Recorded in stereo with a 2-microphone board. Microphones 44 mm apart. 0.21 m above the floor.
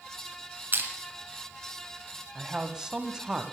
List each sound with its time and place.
0.7 s crushing: 45° right (ahead or behind), 2.5 m
2.4 s a man speaking: 15° right (ahead or behind), 1.1 m